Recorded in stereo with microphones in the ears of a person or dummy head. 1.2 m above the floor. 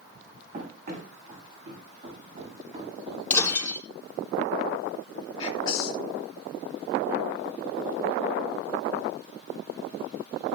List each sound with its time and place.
0.5 s running footsteps: 45° right (ahead or behind), 5 m; by 3.2 s 35° right (ahead or behind), 6.5 m
3.3 s breaking glass: 10° left (ahead or behind), 3.5 m
5.4 s whispering: 25° left (ahead or behind), 2.5 m